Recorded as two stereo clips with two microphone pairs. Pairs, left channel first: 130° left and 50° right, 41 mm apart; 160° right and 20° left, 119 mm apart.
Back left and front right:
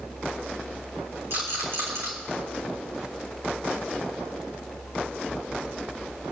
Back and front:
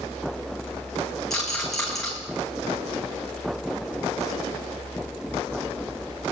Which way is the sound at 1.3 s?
75° right.